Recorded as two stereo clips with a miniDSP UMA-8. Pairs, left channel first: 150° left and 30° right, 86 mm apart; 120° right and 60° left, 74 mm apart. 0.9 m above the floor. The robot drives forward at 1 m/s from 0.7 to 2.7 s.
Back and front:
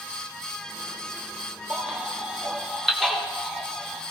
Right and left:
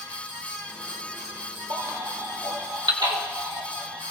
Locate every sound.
1.7 s a baby crying: 40° left, 3 m; by 4.0 s 55° left, 2 m